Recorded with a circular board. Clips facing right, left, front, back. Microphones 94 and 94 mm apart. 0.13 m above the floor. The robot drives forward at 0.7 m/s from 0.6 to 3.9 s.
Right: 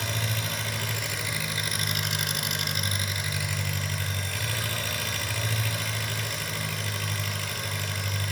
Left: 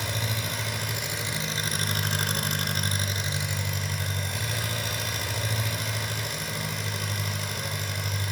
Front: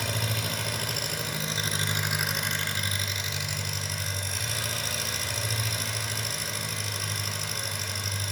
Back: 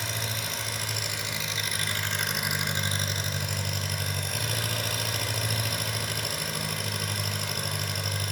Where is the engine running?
20° left, 1.4 m; by 8.3 s 160° left, 1.3 m.